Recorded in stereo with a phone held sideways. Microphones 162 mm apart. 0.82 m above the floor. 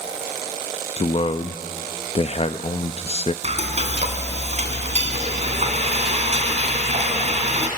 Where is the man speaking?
40° left (ahead or behind), 0.5 m.